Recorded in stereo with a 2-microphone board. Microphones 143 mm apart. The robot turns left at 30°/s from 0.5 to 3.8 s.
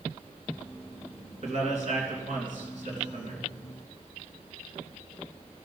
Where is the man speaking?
50° right (ahead or behind), 3 m; by 3.4 s 60° right (ahead or behind), 3 m.